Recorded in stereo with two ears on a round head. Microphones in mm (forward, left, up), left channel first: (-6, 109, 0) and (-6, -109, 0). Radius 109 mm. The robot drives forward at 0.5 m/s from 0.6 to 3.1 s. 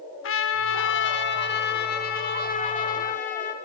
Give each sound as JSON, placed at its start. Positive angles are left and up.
{"t": 0.2, "sound": "a trumpet", "side_deg": 60, "distance_m": 1.6}